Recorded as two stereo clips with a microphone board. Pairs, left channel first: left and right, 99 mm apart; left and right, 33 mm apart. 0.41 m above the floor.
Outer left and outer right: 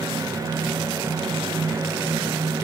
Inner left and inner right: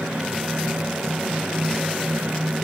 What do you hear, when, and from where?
Only background noise.